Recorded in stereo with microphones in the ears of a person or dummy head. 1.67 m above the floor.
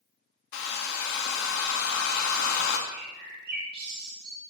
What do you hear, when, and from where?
0.5 s a hair dryer: 65° left (ahead or behind), 0.8 m
2.9 s a bird: 60° right (ahead or behind), 2 m